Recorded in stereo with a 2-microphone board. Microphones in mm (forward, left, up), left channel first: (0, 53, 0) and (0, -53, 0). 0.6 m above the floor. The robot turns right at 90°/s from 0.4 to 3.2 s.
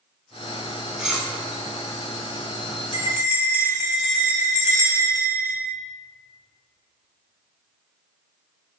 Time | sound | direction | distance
1.0 | cutlery clinking | 10° right (ahead or behind) | 1.1 m
2.9 | a bell | 65° left (ahead or behind) | 1.4 m